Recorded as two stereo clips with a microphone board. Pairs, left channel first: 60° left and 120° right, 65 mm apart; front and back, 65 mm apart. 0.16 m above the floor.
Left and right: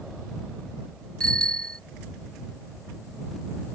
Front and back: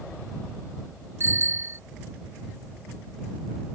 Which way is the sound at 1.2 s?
135° left.